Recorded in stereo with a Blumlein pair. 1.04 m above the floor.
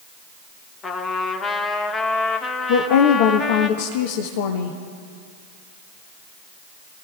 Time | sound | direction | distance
0.8 | a trumpet | 20° left | 1.2 m
2.7 | a woman speaking | 50° left | 1.0 m